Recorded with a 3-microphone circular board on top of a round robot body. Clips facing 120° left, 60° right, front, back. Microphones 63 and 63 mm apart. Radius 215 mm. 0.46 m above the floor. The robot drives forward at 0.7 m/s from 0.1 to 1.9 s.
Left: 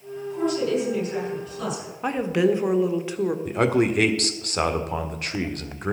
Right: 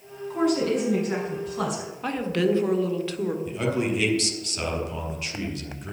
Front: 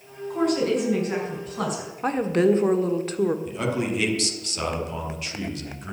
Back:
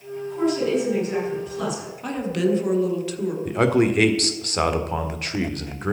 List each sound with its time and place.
0.3 s a woman speaking: 40° right, 6.5 m; by 1.9 s 45° right, 5.5 m
2.0 s a woman speaking: 50° left, 1.6 m
3.5 s a man speaking: 150° left, 1.6 m